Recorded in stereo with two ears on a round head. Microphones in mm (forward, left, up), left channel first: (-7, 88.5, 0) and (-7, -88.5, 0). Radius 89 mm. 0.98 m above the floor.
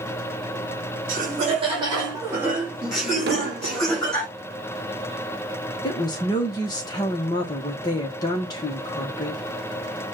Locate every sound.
1.1 s laughter: 45° right (ahead or behind), 1.3 m; by 4.3 s 10° left (ahead or behind), 3 m
3.3 s an explosion: 60° right (ahead or behind), 0.7 m
5.8 s a woman speaking: 20° left (ahead or behind), 0.8 m